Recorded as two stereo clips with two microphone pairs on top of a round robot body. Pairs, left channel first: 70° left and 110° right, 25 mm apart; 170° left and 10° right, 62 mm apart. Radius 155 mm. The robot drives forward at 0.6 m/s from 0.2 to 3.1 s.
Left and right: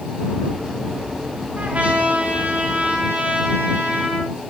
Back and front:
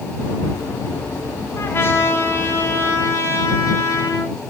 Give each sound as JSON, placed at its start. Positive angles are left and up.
{"t": 1.6, "sound": "a trumpet", "azimuth_deg": -140, "distance_m": 4.5}